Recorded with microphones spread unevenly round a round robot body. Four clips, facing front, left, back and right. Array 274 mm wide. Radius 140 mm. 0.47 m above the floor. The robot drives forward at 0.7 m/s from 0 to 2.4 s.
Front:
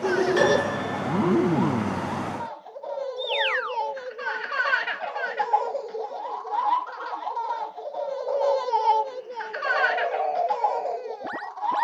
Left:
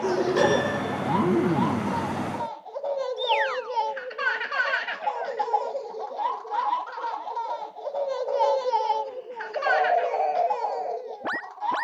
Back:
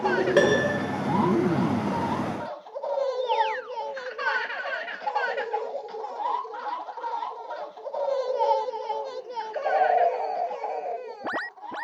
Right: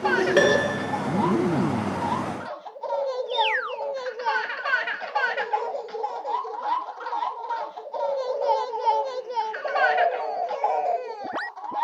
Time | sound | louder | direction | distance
0.4 | a piano | right 2 dB, back 2 dB | 145° right | 0.9 m